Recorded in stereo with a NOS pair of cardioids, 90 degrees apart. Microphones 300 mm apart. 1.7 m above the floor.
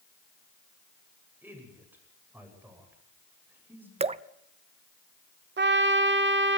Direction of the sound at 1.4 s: 5° right.